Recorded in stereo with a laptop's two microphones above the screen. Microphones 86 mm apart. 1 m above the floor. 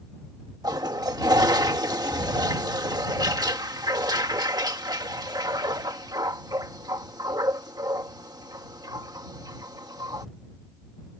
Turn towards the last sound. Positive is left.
turn(degrees=-50)  # may be behind; listen again after turning